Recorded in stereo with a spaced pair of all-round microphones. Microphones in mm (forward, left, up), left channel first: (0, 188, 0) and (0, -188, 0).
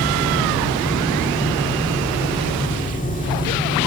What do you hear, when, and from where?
0.0 s a fan: 20° left (ahead or behind), 2 m